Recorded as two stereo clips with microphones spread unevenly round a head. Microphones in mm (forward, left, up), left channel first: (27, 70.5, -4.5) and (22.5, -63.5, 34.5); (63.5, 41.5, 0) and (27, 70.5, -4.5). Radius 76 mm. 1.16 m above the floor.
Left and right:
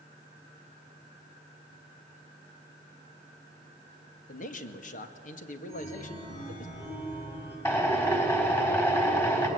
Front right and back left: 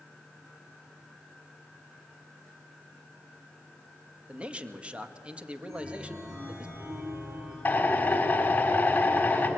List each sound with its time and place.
4.3 s a man speaking: 80° left, 1.9 m
5.7 s a chime: 155° left, 9.5 m
7.7 s a drill: 15° left, 4 m